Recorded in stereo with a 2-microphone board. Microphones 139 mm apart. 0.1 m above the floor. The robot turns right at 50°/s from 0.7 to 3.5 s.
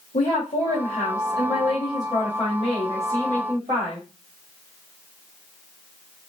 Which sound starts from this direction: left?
A woman speaking, at 0.1 s.